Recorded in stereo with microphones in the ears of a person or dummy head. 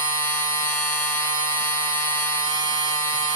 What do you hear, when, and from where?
0.0 s a machine running: 40° left (ahead or behind), 1.6 m